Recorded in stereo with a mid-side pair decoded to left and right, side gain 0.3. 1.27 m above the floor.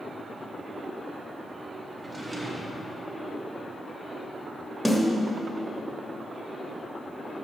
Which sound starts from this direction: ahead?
A snare drum, at 4.8 s.